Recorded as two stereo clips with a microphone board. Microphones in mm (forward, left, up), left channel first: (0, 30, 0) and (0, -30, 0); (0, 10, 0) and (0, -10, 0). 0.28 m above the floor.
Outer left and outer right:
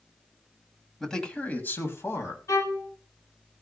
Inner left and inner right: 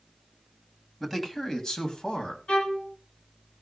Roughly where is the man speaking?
Centre.